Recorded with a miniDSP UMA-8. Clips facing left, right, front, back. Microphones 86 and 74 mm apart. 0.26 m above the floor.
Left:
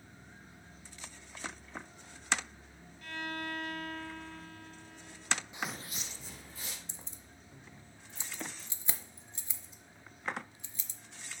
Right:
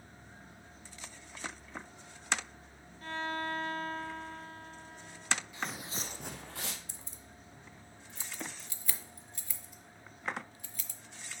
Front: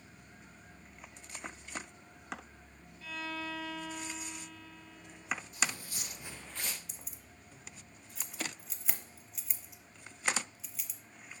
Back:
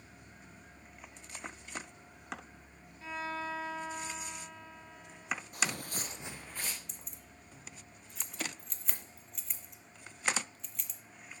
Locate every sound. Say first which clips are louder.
3.0 s a violin: right 4 dB, back 2 dB; 130° right, 0.7 m
5.5 s footsteps: right 1 dB, back 1 dB; 155° left, 0.6 m; by 6.8 s 95° right, 1.4 m
6.9 s keys jangling: right 1 dB, even; 80° left, 0.7 m